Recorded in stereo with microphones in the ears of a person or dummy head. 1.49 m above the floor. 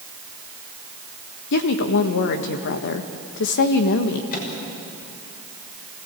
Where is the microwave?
50° left (ahead or behind), 5.5 m.